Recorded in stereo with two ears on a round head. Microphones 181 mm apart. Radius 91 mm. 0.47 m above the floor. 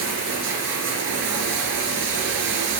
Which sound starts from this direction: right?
Running water, at 0.0 s.